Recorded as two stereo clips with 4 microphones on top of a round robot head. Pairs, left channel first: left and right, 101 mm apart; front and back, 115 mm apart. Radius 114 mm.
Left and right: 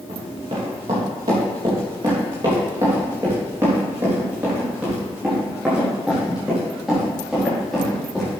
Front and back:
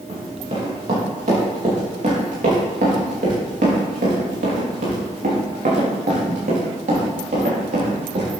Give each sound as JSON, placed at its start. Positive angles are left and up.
{"t": 0.1, "sound": "running footsteps", "azimuth_deg": -130, "distance_m": 5.0}